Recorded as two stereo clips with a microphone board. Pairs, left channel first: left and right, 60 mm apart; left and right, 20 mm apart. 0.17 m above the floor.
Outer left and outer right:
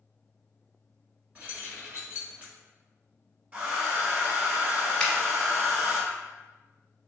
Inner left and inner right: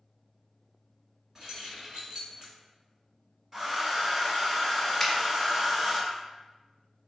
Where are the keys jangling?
30° right (ahead or behind), 1.3 m.